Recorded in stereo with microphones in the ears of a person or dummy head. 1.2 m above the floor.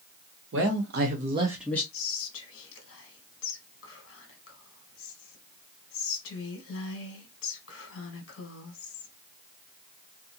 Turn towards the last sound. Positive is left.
turn(degrees=65)  # may be behind; listen again after turning